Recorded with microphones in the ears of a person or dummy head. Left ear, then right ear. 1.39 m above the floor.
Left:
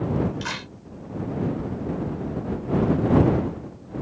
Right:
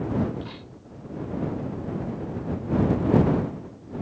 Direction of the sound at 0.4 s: 65° left (ahead or behind).